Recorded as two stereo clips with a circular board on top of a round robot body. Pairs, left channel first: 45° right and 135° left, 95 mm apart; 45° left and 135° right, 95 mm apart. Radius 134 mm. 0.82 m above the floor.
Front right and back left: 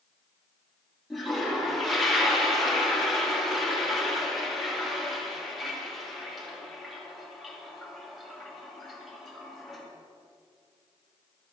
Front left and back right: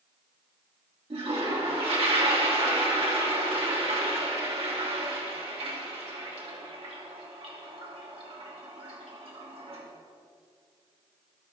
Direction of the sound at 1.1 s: 135° right.